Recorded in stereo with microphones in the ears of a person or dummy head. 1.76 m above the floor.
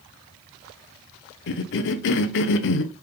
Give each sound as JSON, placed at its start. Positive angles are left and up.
{"t": 1.5, "sound": "a cough", "side_deg": 75, "distance_m": 0.6}